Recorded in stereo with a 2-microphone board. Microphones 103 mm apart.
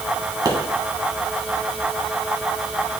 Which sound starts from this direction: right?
A pop, at 0.5 s.